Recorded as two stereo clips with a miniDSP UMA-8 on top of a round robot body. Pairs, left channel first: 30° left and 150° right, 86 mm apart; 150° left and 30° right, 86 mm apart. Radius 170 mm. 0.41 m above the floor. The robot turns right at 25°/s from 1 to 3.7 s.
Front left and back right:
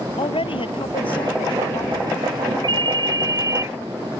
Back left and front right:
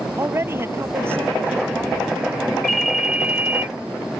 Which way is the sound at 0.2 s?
30° left.